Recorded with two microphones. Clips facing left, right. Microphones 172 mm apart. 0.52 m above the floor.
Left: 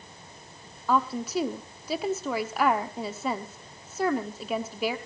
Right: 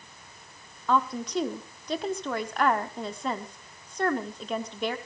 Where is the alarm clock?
No alarm clock in this recording.